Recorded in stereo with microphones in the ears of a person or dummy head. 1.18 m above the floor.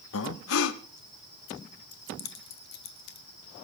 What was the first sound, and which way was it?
Breathing, 75° left (ahead or behind).